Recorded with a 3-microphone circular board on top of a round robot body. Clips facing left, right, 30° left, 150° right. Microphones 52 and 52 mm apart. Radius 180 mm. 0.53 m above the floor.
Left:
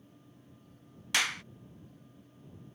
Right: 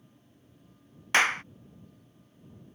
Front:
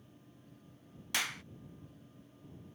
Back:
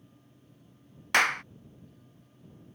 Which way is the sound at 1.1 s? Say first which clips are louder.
Right 7 dB, back 13 dB; 135° right.